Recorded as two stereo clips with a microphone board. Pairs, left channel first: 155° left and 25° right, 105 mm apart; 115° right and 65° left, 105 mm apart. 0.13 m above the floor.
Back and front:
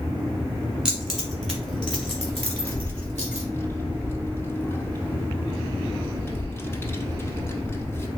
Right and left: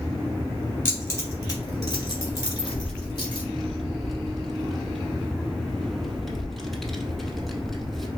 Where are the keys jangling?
95° right, 1.2 m; by 3.5 s 140° right, 2 m.